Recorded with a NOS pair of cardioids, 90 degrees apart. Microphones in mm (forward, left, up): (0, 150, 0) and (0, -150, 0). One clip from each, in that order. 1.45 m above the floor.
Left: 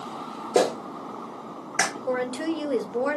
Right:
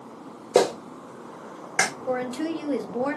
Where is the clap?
25° right, 1.1 m.